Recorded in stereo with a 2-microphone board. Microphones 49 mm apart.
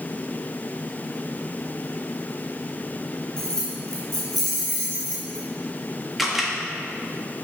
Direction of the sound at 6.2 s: 5° right (ahead or behind).